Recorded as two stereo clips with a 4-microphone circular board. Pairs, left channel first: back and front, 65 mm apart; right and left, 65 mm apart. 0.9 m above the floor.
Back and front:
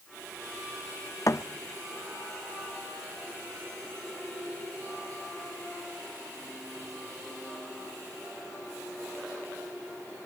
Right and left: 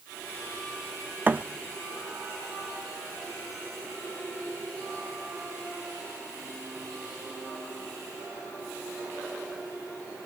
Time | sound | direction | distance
1.3 | a thud | 150° left | 0.6 m